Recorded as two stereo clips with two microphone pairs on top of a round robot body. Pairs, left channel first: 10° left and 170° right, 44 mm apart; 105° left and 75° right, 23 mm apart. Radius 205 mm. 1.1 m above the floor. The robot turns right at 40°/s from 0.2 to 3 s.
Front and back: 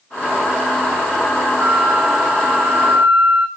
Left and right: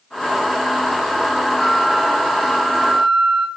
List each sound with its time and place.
1.6 s a flute: 170° left, 0.9 m; by 3.5 s 135° right, 0.9 m